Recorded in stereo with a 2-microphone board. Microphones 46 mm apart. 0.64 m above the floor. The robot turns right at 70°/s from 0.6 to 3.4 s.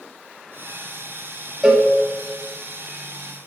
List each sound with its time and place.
1.6 s a cowbell: 5° right (ahead or behind), 1.2 m; by 1.9 s 25° right (ahead or behind), 1.2 m